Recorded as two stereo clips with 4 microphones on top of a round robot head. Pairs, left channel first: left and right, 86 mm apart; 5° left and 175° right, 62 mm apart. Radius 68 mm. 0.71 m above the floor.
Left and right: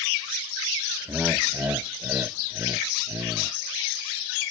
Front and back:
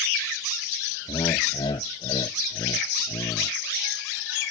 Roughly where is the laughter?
Ahead.